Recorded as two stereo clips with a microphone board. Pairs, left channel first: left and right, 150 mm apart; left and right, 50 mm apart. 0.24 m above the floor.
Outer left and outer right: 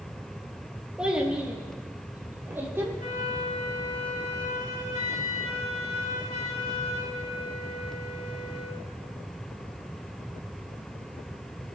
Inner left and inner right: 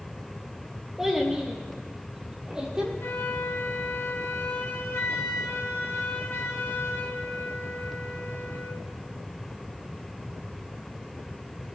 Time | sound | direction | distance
1.0 | a child speaking | 5° right (ahead or behind) | 4 m
3.0 | a flute | 55° left (ahead or behind) | 1.6 m